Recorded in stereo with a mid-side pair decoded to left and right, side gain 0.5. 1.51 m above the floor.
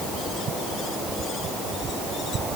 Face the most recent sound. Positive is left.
No sound to turn to.